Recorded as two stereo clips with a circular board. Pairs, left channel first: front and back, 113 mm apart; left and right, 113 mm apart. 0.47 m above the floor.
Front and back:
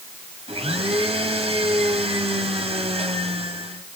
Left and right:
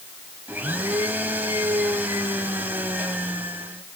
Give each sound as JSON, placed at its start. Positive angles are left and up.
{"t": 0.5, "sound": "a blender", "azimuth_deg": -165, "distance_m": 2.5}